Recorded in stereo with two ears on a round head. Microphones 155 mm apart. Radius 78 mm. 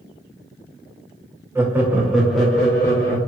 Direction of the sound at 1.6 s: 15° right (ahead or behind).